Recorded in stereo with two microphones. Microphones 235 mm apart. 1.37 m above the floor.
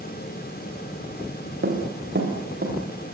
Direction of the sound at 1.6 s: 50° right (ahead or behind).